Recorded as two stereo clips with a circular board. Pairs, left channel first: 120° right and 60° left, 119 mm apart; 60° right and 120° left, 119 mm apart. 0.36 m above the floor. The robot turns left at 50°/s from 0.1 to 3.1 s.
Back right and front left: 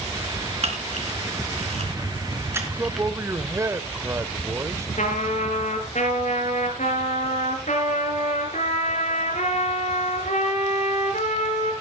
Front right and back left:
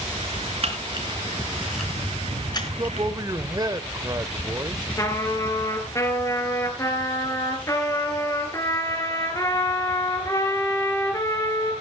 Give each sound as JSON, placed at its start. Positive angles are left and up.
{"t": 0.6, "sound": "a camera shutter", "azimuth_deg": 90, "distance_m": 3.5}
{"t": 2.6, "sound": "a man speaking", "azimuth_deg": 130, "distance_m": 0.9}
{"t": 5.0, "sound": "a trumpet", "azimuth_deg": -125, "distance_m": 3.5}